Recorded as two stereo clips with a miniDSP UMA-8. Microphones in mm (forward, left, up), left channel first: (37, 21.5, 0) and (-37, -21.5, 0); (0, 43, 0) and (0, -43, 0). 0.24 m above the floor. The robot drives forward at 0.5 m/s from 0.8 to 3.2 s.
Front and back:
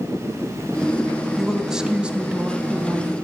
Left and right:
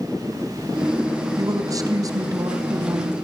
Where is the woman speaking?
60° right, 2 m; by 3.1 s 100° right, 2.0 m.